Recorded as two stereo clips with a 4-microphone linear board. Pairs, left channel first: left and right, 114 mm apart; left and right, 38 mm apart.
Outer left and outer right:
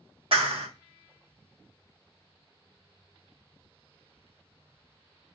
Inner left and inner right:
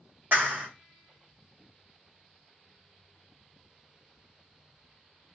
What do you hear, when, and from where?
0.3 s a clap: 60° right (ahead or behind), 1.4 m